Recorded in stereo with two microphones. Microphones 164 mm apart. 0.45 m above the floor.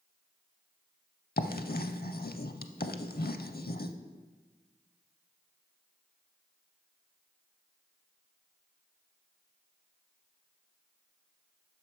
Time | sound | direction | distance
1.4 | writing | 70° left (ahead or behind) | 0.5 m